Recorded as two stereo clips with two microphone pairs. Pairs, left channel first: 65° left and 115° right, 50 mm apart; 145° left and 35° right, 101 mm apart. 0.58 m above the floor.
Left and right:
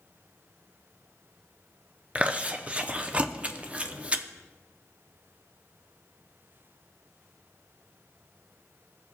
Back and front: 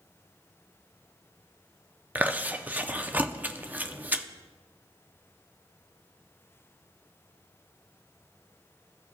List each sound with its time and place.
2.1 s chewing: 90° right, 0.5 m